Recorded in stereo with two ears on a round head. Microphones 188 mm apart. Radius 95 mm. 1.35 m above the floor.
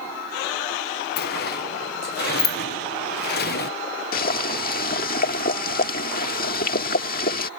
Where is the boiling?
45° left (ahead or behind).